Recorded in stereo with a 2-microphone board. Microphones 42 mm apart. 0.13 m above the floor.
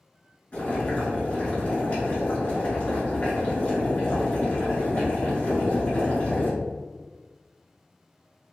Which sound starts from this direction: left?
Boiling, at 0.5 s.